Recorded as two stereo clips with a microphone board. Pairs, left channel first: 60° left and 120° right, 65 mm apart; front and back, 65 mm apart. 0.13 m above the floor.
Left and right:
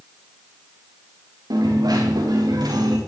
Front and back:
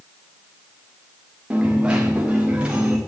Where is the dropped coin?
110° right, 4 m.